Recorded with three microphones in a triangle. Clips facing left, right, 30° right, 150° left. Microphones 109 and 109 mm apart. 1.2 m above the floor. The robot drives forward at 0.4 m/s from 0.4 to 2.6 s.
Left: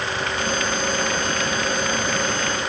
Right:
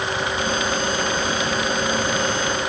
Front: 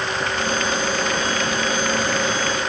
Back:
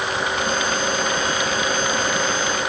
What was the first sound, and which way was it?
Only background noise.